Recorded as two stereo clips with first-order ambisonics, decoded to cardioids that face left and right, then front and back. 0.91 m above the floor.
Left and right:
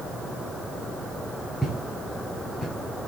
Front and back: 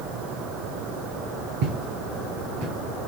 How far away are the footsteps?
About 5.5 m.